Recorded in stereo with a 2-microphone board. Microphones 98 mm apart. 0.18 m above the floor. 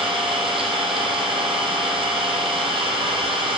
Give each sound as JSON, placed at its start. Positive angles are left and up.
{"t": 0.0, "sound": "an engine running", "side_deg": -70, "distance_m": 1.6}